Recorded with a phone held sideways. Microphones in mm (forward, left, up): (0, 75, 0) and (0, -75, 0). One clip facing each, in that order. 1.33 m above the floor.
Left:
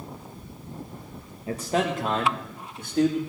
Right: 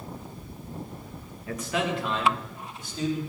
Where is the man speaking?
25° left (ahead or behind), 1.3 m; by 3.2 s 60° left (ahead or behind), 2.5 m.